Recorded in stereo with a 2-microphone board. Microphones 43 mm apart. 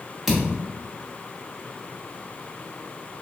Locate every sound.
0.3 s a thud: 5° right (ahead or behind), 1.0 m